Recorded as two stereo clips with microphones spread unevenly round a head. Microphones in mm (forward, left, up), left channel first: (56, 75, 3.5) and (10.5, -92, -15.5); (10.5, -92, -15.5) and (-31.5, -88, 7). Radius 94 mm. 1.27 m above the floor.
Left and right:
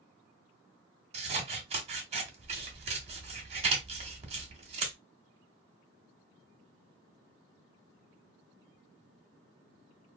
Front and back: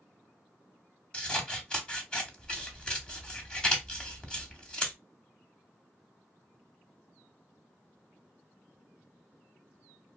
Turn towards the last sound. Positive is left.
turn(degrees=-115)